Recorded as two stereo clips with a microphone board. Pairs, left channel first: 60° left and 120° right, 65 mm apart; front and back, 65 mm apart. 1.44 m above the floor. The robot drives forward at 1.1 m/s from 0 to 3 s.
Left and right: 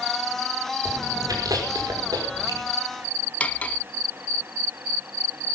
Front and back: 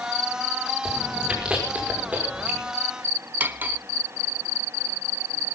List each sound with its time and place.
0.8 s chewing: 100° right, 5.5 m; by 2.6 s 120° right, 6 m
3.4 s cutlery clinking: 125° left, 1.0 m